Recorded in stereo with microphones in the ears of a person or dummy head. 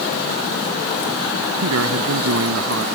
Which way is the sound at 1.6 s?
80° right.